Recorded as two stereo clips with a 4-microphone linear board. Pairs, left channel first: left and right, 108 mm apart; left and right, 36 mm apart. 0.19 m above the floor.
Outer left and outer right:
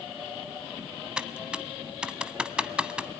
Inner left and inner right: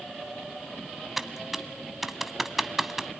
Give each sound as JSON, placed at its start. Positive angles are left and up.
{"t": 1.2, "sound": "typing on a keyboard", "side_deg": -10, "distance_m": 0.8}